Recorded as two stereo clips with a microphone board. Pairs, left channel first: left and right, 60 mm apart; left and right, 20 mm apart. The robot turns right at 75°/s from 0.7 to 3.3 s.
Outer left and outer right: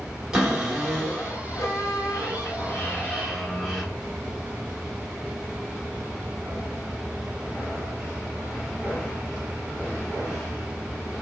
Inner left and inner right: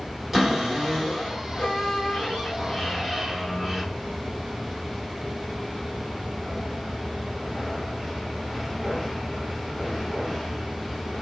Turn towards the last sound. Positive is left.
turn(degrees=180)